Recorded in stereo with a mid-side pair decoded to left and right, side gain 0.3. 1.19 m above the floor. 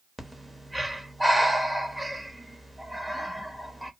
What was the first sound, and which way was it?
Breathing, 10° right.